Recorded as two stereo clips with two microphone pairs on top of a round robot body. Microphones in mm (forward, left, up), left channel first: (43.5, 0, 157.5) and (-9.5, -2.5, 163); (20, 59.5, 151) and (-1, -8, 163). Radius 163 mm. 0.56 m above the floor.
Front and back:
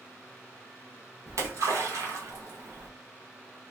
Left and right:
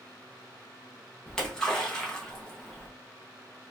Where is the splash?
155° left, 0.9 m.